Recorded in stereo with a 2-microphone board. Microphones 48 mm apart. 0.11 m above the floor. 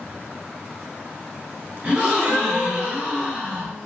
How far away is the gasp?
About 1.9 m.